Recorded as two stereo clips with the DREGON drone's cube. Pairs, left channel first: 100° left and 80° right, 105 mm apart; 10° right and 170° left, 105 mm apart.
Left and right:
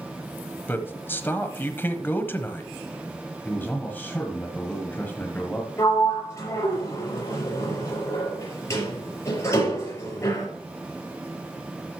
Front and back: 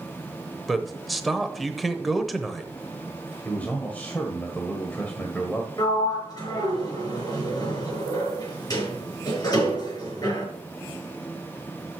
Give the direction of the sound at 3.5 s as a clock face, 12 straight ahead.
10 o'clock.